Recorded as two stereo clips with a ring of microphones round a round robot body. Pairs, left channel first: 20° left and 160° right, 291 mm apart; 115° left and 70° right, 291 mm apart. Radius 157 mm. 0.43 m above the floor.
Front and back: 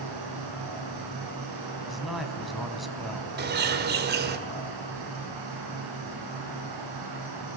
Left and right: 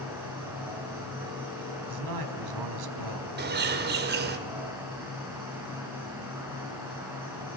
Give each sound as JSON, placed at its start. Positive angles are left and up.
{"t": 0.0, "sound": "an insect", "azimuth_deg": -150, "distance_m": 10.0}
{"t": 1.9, "sound": "a man speaking", "azimuth_deg": -70, "distance_m": 4.0}
{"t": 3.4, "sound": "a bird", "azimuth_deg": -110, "distance_m": 2.0}